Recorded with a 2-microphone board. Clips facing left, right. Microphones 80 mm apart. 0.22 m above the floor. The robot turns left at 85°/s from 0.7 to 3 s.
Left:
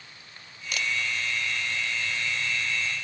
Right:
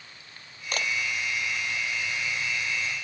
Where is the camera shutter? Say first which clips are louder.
Right 1 dB; 40° right (ahead or behind); by 0.9 s 55° right (ahead or behind).